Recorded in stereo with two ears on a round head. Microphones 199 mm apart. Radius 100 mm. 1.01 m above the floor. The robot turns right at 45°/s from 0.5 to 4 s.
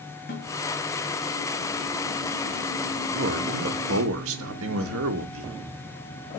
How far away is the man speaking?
About 1.7 m.